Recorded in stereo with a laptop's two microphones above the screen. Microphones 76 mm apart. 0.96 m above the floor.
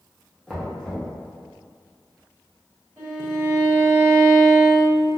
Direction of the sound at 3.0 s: 15° right (ahead or behind).